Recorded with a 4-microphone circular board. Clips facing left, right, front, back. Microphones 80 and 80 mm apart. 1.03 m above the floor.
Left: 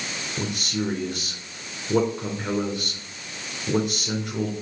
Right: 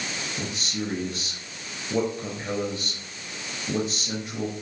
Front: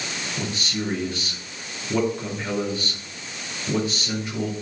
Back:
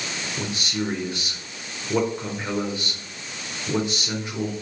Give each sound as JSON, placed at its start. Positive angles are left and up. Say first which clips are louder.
{"t": 0.4, "sound": "a man speaking", "louder": "left 6 dB, back 1 dB", "azimuth_deg": 115, "distance_m": 4.0}